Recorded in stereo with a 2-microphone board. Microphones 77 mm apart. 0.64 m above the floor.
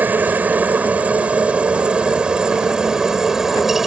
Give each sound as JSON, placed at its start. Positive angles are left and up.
{"t": 0.0, "sound": "a helicopter", "side_deg": -25}